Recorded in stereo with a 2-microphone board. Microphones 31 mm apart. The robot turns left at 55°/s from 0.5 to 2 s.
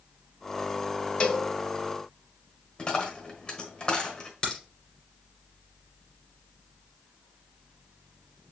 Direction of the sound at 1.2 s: 35° left (ahead or behind).